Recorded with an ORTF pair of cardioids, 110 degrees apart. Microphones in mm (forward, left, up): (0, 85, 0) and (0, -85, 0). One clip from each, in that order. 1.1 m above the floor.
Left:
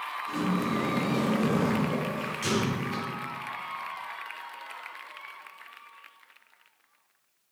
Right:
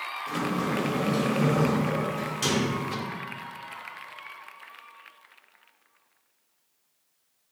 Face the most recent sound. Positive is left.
turn(degrees=-50)